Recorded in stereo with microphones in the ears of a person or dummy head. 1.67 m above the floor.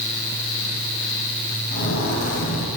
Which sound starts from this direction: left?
Footsteps, at 1.7 s.